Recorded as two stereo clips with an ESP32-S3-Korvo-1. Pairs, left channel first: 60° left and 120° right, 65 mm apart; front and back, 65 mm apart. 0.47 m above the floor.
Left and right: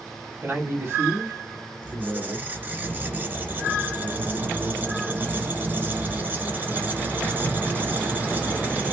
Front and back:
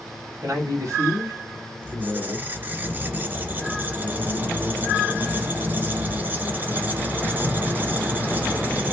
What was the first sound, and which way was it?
A man speaking, 160° right.